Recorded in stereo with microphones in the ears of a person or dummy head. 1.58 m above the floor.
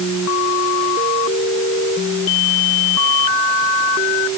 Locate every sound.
Only background noise.